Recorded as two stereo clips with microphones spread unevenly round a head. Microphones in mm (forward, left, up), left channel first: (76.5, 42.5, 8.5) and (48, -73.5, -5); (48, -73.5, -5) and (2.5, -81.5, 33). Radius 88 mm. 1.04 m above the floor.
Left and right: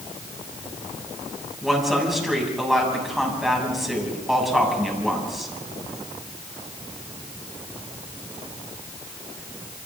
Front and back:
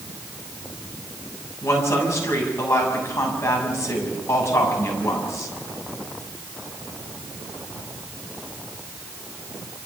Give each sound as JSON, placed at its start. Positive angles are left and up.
{"t": 1.6, "sound": "a woman speaking", "azimuth_deg": -15, "distance_m": 7.0}